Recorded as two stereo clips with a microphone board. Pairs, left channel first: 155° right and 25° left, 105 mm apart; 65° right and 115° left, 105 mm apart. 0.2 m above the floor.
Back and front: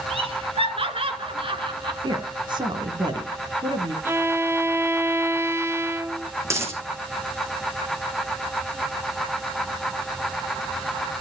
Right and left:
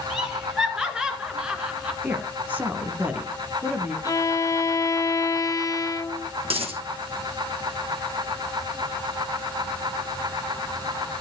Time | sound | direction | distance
0.1 | laughter | 30° left | 4 m
2.0 | a woman speaking | 40° left | 1.9 m
4.0 | a violin | 35° right | 0.7 m
6.5 | a dropped coin | 85° left | 3 m